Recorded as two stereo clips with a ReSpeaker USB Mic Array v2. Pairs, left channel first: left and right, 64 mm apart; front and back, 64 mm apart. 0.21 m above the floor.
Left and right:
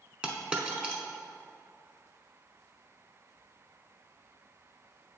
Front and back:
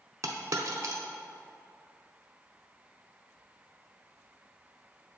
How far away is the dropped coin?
About 0.7 m.